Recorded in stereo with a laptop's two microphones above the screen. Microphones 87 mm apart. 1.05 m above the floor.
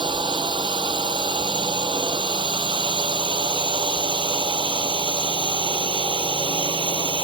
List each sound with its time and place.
0.0 s a drone: 70° right (ahead or behind); by 7.2 s 75° right (ahead or behind)